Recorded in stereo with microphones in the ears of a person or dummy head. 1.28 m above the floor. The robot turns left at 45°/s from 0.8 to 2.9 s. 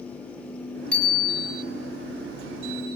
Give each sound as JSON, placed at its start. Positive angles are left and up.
{"t": 0.9, "sound": "a bicycle bell", "side_deg": 10, "distance_m": 7.5}